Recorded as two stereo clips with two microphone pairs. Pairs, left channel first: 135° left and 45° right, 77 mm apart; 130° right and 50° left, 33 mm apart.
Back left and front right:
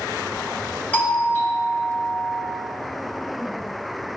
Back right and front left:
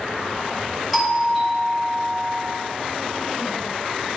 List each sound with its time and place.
0.9 s a doorbell: 135° left, 1.5 m